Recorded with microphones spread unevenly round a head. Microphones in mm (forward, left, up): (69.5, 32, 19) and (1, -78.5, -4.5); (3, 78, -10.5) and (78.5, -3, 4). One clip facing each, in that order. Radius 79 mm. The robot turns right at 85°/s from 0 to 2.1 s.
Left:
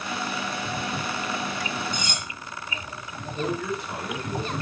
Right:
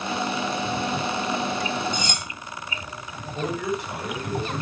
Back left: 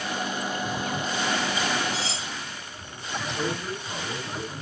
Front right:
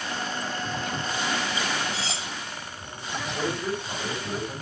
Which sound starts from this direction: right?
A man speaking, at 3.4 s.